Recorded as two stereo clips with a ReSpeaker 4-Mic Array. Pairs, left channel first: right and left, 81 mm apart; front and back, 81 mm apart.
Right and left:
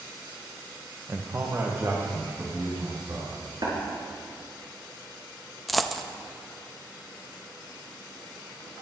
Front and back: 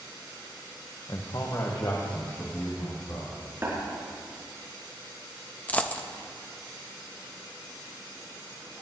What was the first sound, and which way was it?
A man speaking, 35° left.